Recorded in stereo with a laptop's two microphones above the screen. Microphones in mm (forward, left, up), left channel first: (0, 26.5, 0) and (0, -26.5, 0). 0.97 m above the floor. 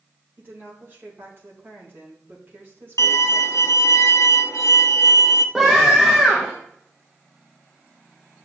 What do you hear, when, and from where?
0.4 s a woman speaking: 45° right (ahead or behind), 3 m
3.0 s a violin: 75° left (ahead or behind), 0.6 m
5.5 s a scream: 5° right (ahead or behind), 1.0 m